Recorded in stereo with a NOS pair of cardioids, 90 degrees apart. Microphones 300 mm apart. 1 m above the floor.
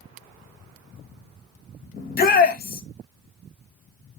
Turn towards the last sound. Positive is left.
turn(degrees=30)